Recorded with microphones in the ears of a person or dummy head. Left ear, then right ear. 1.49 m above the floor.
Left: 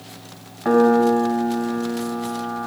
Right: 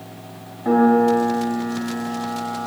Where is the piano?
55° left (ahead or behind), 0.9 m.